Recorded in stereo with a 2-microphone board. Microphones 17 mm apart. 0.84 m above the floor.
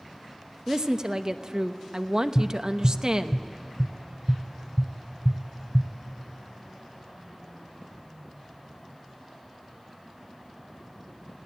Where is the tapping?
50° right (ahead or behind), 1.1 m.